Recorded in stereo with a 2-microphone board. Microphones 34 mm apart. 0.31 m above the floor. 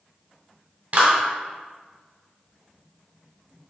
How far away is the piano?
I don't hear a piano.